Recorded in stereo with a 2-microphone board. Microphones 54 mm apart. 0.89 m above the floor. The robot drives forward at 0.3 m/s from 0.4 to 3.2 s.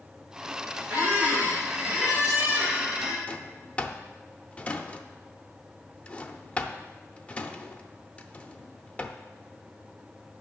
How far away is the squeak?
About 2.5 m.